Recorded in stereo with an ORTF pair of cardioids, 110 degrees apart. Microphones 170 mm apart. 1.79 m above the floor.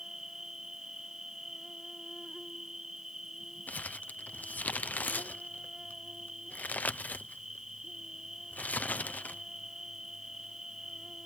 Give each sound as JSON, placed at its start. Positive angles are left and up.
{"t": 0.0, "sound": "an insect", "azimuth_deg": -5}
{"t": 3.7, "sound": "crumpling", "azimuth_deg": 10}